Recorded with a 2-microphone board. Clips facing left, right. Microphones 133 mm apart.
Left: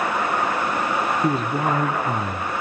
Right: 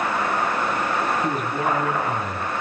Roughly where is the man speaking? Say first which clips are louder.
Left 2 dB; left.